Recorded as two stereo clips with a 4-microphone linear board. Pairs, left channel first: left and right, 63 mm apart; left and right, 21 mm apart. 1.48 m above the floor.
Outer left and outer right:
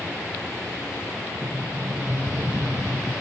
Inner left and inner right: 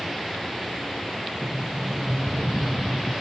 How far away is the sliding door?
About 0.6 m.